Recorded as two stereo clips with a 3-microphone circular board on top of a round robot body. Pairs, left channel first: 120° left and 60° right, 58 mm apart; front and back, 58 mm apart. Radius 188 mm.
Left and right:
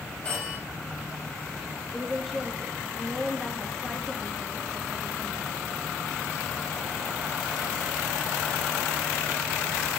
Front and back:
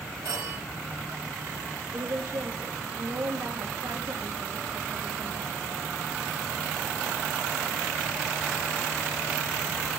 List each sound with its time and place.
0.2 s a phone ringing: 165° right, 5 m
1.9 s a woman speaking: 150° right, 2.5 m